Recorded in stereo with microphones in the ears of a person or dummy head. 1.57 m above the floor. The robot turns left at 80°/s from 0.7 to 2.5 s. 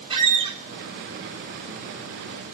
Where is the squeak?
30° right (ahead or behind), 0.9 m.